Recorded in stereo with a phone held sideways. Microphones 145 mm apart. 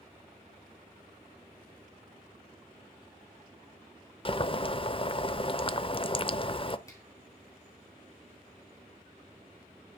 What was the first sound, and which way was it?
Boiling, 35° left (ahead or behind).